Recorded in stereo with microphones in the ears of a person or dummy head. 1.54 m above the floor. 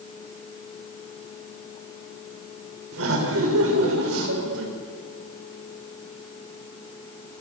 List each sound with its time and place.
2.9 s laughter: 85° right, 6 m